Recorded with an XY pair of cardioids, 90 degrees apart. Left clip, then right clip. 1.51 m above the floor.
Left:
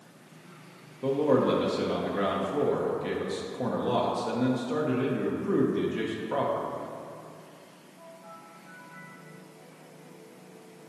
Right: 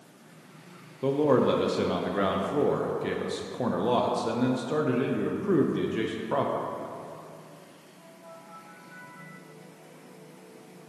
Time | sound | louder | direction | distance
1.0 | a man speaking | right 1 dB | 30° right | 0.7 m